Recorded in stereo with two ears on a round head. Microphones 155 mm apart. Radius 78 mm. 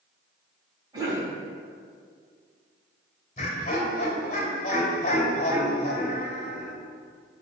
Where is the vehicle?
I don't hear a vehicle.